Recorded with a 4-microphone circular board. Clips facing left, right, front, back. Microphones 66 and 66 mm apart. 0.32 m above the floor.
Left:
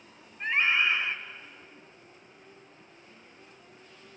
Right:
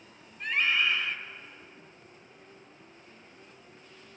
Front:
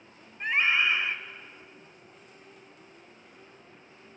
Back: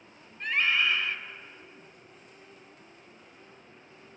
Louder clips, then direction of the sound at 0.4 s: Left 2 dB, front 1 dB; 50° left.